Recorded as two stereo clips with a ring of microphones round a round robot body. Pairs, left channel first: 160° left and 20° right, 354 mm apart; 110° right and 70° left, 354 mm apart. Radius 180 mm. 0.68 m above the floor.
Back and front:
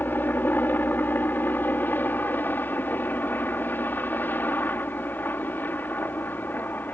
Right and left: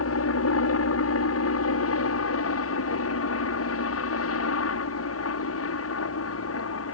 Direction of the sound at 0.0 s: 120° right.